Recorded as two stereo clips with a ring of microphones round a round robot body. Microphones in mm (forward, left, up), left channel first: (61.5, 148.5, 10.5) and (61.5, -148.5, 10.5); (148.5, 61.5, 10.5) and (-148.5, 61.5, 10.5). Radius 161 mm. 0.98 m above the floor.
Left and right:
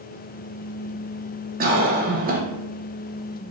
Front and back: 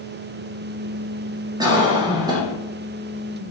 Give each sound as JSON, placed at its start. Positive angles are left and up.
{"t": 1.6, "sound": "a cough", "azimuth_deg": -115, "distance_m": 0.7}